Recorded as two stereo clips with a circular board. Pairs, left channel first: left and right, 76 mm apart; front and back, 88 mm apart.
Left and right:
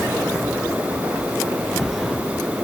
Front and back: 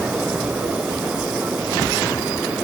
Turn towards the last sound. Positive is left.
No sound to turn to.